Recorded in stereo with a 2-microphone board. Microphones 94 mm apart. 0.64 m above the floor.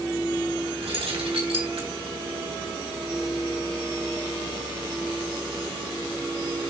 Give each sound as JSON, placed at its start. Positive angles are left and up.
{"t": 0.8, "sound": "keys jangling", "side_deg": -85, "distance_m": 4.0}